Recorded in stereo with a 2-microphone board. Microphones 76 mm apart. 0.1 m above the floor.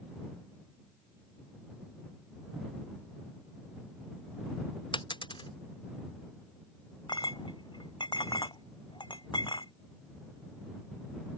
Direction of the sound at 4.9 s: 85° left.